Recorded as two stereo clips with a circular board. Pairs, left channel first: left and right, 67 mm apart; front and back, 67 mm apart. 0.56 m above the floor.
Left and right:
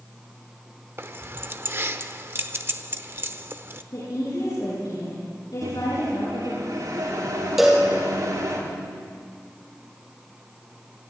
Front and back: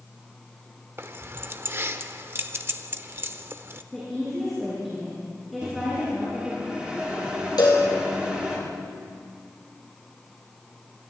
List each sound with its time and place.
1.0 s keys jangling: 135° right, 1.0 m
3.9 s a woman speaking: 90° left, 8 m
5.6 s a microwave: 105° right, 8.5 m
7.6 s a cowbell: 5° right, 4 m